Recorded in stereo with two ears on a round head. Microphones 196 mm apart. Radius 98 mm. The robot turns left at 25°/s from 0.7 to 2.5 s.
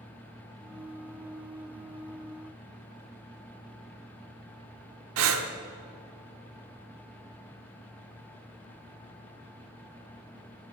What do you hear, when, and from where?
5.2 s breathing: 70° right (ahead or behind), 0.8 m